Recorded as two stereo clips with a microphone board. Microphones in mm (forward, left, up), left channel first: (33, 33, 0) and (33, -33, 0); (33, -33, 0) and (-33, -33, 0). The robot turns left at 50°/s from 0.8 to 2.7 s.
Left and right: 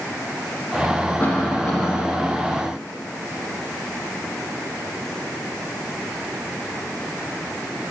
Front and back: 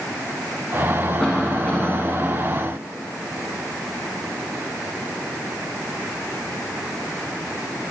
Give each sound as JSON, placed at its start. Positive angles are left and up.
{"t": 1.2, "sound": "a cough", "azimuth_deg": 60, "distance_m": 1.1}